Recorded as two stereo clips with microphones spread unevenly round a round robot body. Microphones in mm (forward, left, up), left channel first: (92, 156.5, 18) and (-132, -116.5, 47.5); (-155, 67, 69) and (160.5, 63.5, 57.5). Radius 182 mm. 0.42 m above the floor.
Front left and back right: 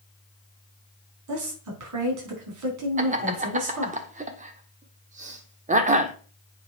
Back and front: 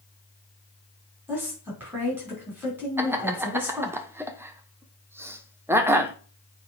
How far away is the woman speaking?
About 4 m.